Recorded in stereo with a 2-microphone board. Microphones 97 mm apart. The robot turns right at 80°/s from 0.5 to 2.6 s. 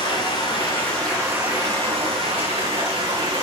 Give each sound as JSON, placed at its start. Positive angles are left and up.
{"t": 0.0, "sound": "running water", "azimuth_deg": 135, "distance_m": 4.0}